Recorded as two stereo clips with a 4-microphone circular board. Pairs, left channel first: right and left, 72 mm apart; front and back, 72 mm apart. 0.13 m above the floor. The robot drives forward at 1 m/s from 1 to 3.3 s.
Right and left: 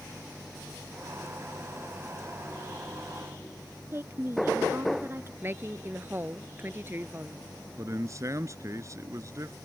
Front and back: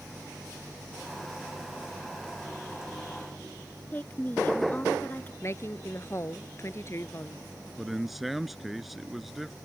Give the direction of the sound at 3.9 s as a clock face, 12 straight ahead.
10 o'clock.